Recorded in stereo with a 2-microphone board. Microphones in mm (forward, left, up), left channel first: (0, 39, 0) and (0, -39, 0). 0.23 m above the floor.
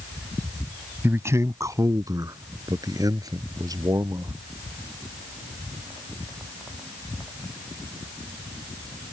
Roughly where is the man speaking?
Right.